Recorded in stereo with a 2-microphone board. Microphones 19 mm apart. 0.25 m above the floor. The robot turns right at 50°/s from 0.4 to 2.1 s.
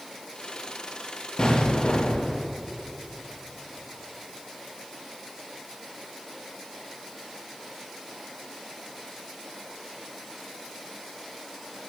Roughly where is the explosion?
Ahead left.